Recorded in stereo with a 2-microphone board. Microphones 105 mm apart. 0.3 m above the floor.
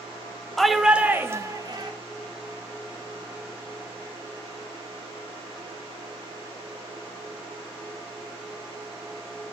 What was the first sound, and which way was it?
A shout, 5° left (ahead or behind).